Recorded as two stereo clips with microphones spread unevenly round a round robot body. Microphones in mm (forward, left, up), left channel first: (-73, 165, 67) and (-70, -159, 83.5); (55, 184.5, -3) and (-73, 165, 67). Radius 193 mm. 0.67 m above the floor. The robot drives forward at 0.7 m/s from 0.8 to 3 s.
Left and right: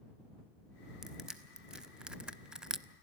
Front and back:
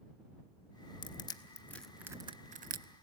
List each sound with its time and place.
1.0 s crushing: straight ahead, 1.0 m; by 2.9 s straight behind, 0.6 m